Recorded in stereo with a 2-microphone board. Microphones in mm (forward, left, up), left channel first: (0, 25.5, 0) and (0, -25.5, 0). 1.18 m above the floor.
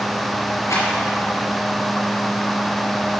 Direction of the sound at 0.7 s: 75° left (ahead or behind).